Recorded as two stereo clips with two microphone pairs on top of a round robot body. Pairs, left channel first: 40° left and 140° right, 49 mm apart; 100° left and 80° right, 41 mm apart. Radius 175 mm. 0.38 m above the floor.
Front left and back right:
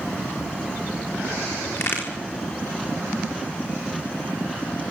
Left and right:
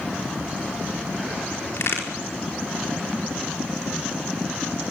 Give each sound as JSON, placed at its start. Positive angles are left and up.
{"t": 1.8, "sound": "a crack", "azimuth_deg": 85, "distance_m": 4.5}